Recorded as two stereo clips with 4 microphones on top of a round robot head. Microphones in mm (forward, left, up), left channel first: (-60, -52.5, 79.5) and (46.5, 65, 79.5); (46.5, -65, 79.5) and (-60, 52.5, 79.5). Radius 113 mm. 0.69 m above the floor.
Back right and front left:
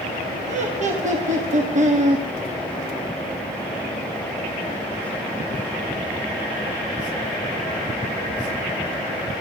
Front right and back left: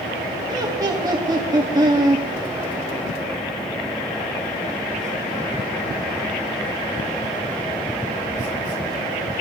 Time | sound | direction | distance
0.5 | laughter | 70° left | 1.7 m